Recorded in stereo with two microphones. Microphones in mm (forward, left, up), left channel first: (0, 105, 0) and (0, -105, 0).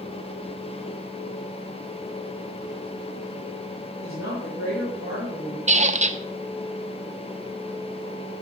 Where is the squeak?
35° right (ahead or behind), 0.5 m.